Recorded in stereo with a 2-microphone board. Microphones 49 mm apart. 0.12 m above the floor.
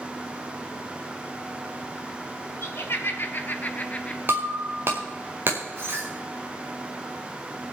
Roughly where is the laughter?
Left.